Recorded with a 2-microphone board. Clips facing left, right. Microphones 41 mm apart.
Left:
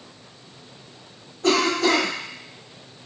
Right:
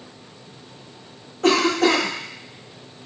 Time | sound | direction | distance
1.4 | a cough | 85° right | 1.9 m